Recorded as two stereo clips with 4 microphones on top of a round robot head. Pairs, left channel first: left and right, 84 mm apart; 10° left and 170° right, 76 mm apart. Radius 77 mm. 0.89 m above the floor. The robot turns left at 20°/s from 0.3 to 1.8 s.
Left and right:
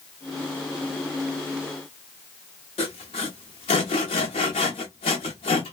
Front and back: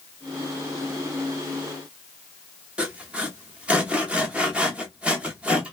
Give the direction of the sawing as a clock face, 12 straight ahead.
8 o'clock.